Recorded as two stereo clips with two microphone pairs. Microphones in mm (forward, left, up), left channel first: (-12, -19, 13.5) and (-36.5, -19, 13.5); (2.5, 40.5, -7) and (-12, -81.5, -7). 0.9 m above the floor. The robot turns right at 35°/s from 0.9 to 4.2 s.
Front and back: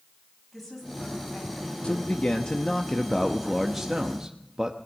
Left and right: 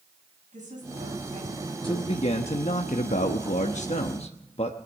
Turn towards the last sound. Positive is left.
turn(degrees=120)